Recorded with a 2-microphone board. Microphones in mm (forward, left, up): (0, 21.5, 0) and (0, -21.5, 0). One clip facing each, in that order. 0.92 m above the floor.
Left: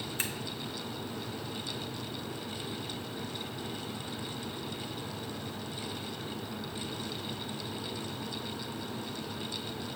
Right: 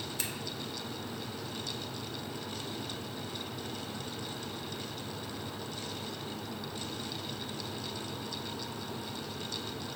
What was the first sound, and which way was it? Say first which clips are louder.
Scissors: left 5 dB; 30° left (ahead or behind).